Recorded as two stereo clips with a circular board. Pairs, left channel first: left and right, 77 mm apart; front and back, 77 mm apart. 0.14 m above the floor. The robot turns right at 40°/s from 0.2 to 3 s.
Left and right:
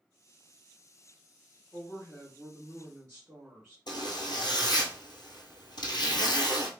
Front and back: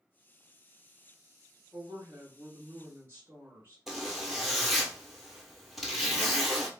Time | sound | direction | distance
1.7 | a woman speaking | 160° left | 1.5 m
3.9 | a zipper | 95° left | 0.9 m